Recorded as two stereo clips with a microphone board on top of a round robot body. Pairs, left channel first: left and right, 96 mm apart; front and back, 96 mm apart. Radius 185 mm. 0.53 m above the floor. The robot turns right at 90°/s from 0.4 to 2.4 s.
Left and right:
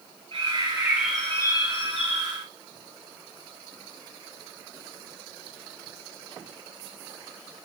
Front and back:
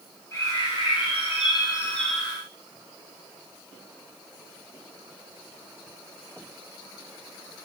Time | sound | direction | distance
0.3 | a bird | 65° right | 1.5 m